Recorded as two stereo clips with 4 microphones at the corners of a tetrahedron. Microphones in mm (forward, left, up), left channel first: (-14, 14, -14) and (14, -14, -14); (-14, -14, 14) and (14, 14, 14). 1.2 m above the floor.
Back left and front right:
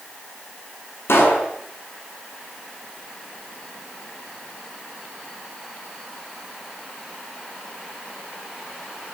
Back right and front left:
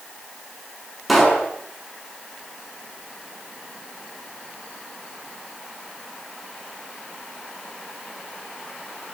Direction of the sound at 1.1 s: 135° left.